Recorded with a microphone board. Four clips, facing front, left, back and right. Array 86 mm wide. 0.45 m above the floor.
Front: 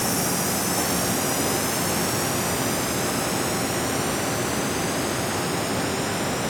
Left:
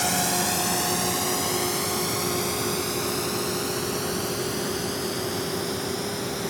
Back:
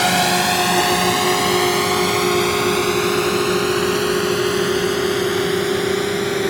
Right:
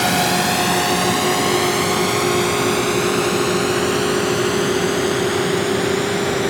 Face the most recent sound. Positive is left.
turn(degrees=-140)